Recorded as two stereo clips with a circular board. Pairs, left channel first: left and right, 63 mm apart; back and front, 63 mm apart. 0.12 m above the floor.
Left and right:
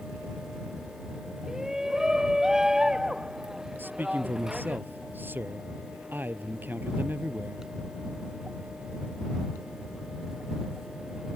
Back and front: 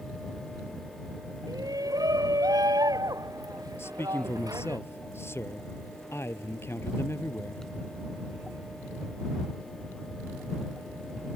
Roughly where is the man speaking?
Behind right.